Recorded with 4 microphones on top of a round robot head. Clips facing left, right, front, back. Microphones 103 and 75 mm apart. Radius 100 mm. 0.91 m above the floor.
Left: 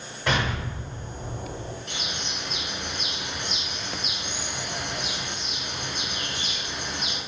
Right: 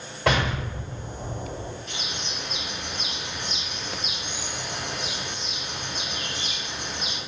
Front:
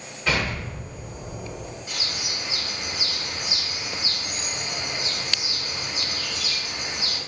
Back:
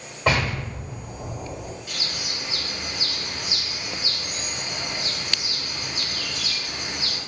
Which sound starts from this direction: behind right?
An explosion, at 0.3 s.